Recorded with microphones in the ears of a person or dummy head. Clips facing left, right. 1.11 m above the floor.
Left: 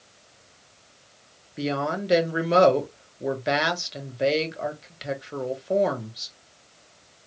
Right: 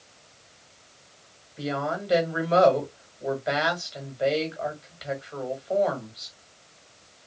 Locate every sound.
1.6 s a woman speaking: 35° left (ahead or behind), 1.1 m